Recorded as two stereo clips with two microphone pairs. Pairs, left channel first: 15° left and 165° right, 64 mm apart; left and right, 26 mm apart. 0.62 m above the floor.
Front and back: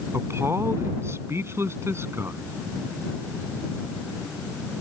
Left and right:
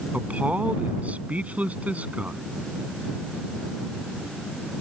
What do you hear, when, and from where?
0.1 s a man speaking: 120° right